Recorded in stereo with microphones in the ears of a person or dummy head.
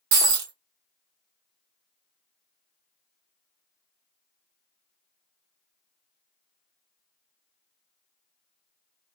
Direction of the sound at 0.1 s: 60° right (ahead or behind).